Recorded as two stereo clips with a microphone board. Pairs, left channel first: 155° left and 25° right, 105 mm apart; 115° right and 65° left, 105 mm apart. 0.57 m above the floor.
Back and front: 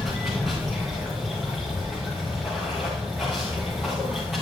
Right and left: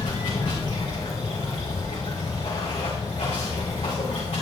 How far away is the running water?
About 4.5 m.